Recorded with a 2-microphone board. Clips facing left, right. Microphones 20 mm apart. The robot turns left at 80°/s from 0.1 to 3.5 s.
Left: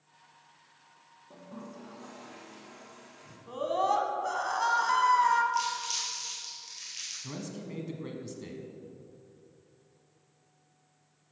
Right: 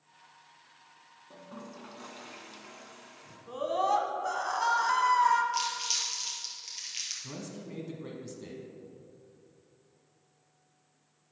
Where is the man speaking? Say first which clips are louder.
Left 2 dB; 15° left (ahead or behind), 1.2 m.